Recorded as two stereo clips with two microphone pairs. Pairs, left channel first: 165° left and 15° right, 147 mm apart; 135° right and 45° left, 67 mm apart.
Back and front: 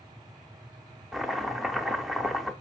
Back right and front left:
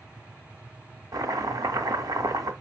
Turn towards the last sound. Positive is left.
turn(degrees=75)